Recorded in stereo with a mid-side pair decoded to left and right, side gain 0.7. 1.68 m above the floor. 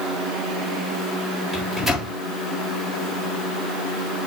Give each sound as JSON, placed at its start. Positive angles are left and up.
{"t": 1.5, "sound": "a microwave", "azimuth_deg": -5, "distance_m": 3.0}